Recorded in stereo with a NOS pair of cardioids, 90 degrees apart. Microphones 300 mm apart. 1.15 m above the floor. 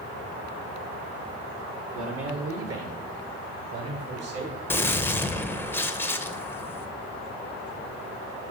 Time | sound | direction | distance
1.9 | a man speaking | 50° right | 1.1 m
4.7 | a gunshot | 10° left | 0.5 m